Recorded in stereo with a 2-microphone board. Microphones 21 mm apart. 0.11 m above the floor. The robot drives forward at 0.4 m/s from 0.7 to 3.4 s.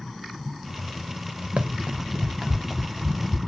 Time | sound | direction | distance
1.6 | running footsteps | 70° right (ahead or behind) | 0.7 m